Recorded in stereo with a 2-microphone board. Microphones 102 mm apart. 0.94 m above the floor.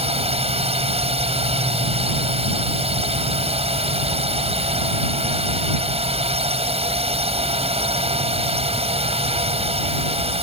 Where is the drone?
75° right (ahead or behind).